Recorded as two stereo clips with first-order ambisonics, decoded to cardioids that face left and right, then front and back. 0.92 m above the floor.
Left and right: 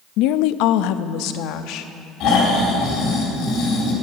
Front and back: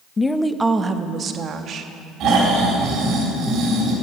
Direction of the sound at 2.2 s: 135° left.